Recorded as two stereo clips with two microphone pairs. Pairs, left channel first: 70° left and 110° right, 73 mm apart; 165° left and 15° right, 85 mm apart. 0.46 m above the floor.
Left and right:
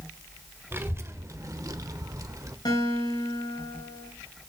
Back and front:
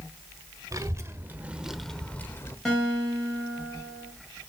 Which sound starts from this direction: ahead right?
A child speaking, at 0.7 s.